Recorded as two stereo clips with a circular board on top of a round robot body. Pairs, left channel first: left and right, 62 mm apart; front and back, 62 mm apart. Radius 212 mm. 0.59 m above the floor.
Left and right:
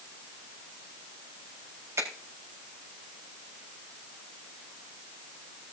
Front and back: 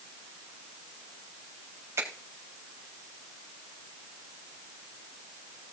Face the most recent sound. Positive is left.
turn(degrees=-135)